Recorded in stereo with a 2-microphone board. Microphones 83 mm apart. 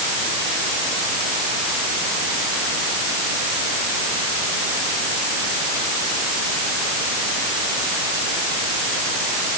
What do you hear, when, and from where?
Only background noise.